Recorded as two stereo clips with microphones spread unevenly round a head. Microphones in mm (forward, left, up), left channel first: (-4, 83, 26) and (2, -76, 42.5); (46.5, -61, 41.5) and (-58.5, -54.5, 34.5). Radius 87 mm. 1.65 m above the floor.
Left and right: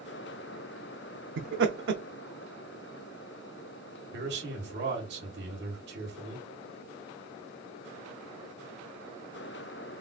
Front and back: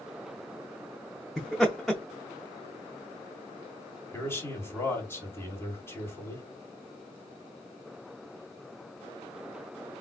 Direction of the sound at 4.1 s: 70° right.